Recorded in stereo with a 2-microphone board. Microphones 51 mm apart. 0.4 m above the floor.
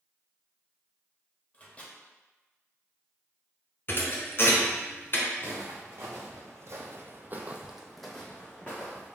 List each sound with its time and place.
1.5 s a microwave: 25° left (ahead or behind), 0.9 m
3.9 s a thud: 45° left (ahead or behind), 1.0 m
5.4 s footsteps: 65° right (ahead or behind), 1.7 m; by 9.2 s 30° left (ahead or behind), 1.5 m